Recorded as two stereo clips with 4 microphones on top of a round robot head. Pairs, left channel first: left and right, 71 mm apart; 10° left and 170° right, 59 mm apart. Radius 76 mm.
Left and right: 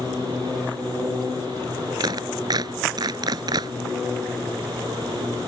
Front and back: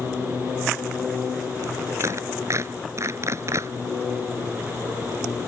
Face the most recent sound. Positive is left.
turn(degrees=-120)